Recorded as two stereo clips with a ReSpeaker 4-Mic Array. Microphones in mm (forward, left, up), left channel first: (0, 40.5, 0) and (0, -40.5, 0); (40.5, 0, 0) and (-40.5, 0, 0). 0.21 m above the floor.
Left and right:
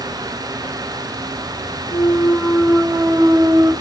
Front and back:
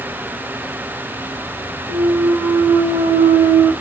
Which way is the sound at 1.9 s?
160° right.